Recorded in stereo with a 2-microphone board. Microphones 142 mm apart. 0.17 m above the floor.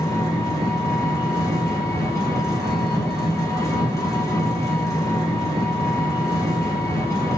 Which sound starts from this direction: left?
An engine running, at 0.0 s.